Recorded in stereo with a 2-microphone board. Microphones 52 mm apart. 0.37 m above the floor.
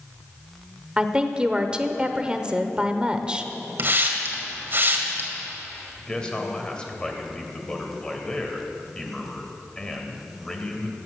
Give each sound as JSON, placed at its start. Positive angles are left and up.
{"t": 1.0, "sound": "a woman speaking", "side_deg": -20, "distance_m": 0.8}
{"t": 3.8, "sound": "a hiss", "side_deg": -45, "distance_m": 2.0}
{"t": 6.0, "sound": "a man speaking", "side_deg": 20, "distance_m": 2.0}